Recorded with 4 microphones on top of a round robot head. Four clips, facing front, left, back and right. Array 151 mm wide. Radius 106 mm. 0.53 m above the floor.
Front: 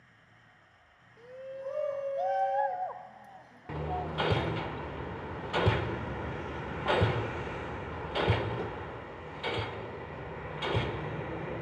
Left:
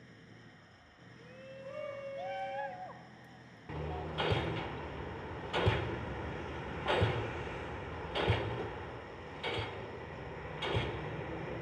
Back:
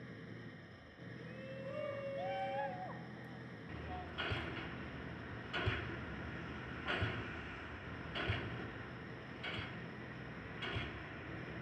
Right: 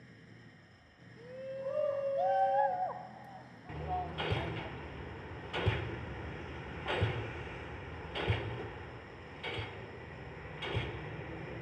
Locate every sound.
0.0 s an engine running: 165° left
1.2 s a shout: 45° right
3.7 s hammering: 5° left